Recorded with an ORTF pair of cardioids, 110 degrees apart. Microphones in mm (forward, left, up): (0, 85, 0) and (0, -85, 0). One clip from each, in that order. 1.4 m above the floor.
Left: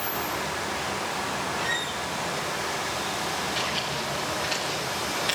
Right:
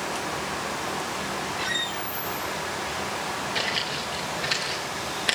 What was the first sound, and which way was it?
A squeak, 25° right.